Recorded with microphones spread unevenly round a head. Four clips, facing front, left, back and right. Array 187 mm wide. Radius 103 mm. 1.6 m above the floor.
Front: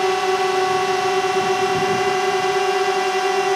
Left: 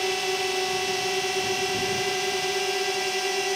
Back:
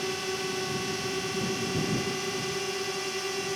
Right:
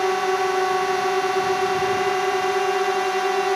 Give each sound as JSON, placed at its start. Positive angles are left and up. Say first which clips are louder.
{"t": 0.0, "sound": "a drone", "louder": "right 7 dB, front 14 dB", "azimuth_deg": -25}